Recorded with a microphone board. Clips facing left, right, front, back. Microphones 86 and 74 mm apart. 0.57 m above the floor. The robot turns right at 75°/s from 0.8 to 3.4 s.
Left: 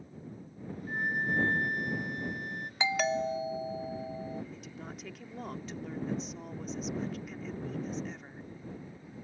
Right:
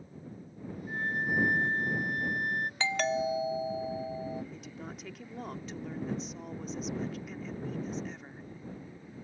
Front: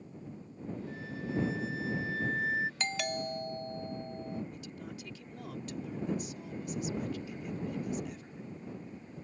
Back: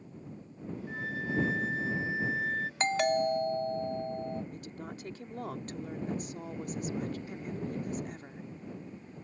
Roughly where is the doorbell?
Behind left.